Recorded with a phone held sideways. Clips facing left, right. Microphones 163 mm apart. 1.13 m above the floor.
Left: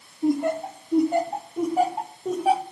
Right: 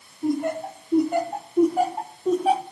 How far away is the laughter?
About 2 m.